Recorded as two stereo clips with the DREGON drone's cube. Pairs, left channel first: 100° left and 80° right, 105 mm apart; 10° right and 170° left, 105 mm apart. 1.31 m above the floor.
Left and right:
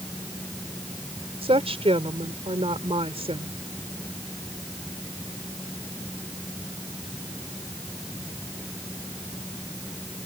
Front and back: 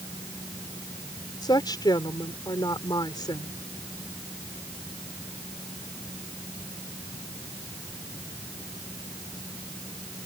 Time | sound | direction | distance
1.4 | a woman speaking | 60° right | ?